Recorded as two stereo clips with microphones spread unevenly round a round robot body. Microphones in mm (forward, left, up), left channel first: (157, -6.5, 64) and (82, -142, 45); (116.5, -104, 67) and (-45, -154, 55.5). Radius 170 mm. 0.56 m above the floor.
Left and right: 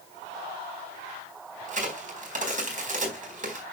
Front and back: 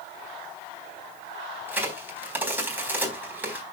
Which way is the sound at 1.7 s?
85° right.